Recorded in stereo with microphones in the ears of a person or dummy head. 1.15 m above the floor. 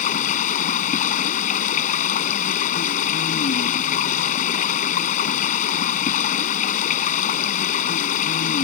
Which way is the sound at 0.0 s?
40° left (ahead or behind).